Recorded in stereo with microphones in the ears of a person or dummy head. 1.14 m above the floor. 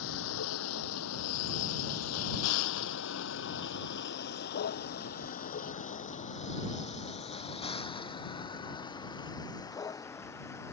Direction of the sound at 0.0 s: 75° left (ahead or behind).